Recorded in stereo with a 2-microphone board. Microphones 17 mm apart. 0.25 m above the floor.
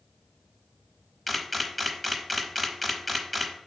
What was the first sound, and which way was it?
A camera shutter, 10° left (ahead or behind).